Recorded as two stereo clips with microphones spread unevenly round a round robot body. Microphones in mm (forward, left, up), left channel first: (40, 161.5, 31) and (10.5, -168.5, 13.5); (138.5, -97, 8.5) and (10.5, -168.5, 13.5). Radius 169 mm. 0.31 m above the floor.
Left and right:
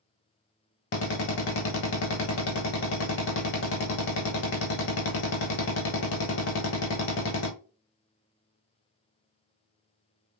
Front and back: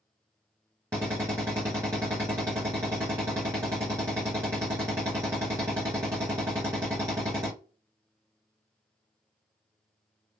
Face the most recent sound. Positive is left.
turn(degrees=135)